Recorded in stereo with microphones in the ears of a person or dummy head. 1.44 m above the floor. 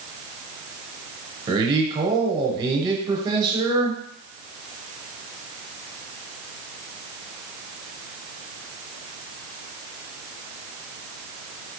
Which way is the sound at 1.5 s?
20° right (ahead or behind).